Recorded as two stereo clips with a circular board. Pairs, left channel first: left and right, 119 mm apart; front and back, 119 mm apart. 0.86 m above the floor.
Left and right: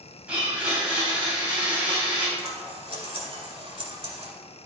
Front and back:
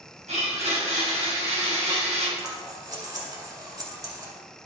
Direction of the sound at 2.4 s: 125° right.